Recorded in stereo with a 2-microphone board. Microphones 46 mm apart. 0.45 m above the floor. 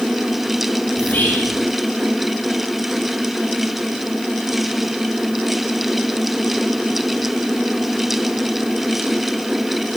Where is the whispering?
35° left (ahead or behind), 5.5 m.